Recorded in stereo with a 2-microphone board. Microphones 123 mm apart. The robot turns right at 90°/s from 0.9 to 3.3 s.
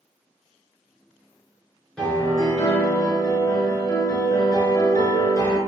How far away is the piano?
About 0.8 m.